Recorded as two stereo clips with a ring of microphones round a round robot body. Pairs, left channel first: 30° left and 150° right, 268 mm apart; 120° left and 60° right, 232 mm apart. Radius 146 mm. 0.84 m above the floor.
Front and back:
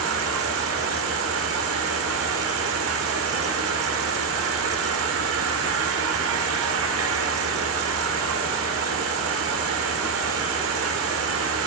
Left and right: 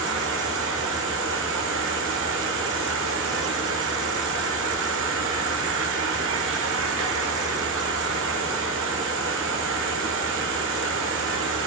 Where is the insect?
110° right, 1.1 m.